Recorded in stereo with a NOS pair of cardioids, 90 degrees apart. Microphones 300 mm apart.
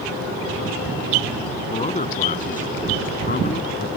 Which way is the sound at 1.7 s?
20° left.